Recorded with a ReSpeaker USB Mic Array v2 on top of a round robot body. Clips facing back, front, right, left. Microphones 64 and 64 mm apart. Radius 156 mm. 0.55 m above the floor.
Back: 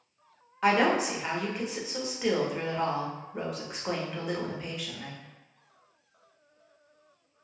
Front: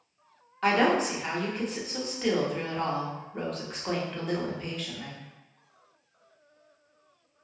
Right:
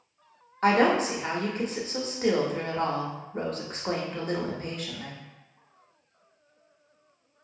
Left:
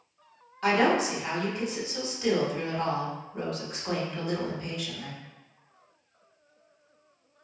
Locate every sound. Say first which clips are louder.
0.6 s a woman speaking: even, right 2 dB; 105° right, 0.9 m